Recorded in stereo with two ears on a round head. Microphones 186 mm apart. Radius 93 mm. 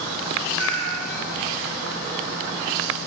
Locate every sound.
0.6 s a cat meowing: 85° right, 7.5 m